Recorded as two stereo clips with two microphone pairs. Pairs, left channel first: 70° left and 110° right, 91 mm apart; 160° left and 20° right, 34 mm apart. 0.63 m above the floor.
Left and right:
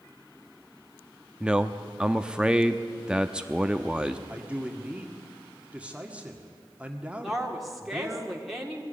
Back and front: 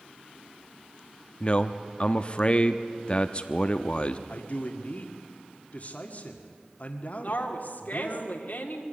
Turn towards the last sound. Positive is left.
turn(degrees=165)